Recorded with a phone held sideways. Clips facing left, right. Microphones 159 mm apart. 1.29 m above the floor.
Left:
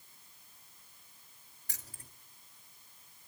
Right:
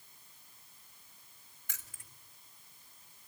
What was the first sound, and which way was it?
Keys jangling, 35° left (ahead or behind).